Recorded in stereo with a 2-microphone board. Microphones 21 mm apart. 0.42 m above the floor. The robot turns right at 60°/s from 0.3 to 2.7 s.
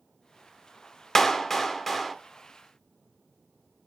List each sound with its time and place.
1.1 s a clap: 20° left (ahead or behind), 0.9 m; by 2.1 s 5° left (ahead or behind), 0.9 m